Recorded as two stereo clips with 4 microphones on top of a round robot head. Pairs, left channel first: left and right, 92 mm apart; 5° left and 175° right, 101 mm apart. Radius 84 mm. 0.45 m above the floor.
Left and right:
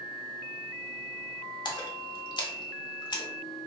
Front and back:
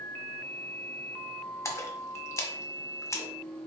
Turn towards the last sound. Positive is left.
turn(degrees=60)